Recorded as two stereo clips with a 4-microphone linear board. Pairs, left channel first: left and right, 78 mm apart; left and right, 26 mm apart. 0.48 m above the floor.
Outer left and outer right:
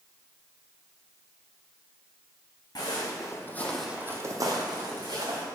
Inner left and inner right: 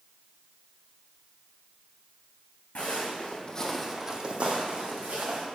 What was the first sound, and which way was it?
Footsteps, 60° left (ahead or behind).